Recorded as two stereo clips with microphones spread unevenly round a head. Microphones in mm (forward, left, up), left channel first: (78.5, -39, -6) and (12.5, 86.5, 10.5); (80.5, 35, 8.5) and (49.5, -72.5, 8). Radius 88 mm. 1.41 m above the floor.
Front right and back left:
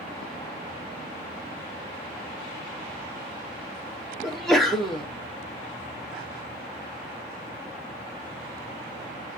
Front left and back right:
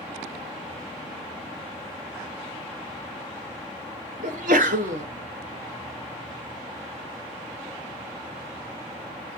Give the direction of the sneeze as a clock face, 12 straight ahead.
5 o'clock.